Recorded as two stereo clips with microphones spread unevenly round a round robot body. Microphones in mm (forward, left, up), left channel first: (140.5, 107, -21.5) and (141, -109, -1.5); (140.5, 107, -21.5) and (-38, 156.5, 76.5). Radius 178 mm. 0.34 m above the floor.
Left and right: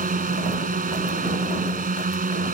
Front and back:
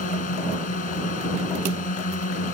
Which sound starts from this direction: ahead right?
A drone, at 0.0 s.